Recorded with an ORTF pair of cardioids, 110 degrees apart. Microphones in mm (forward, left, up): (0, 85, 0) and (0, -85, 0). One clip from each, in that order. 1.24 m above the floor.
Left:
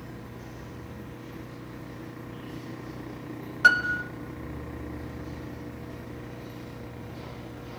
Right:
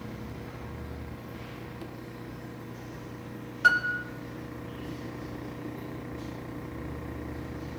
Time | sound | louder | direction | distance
3.6 | a piano | left 3 dB | 25° left | 0.9 m